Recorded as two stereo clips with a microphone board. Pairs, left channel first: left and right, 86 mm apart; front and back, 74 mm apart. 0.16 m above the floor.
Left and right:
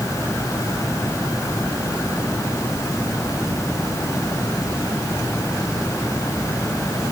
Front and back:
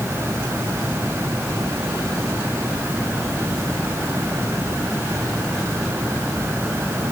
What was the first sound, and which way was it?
Only background noise.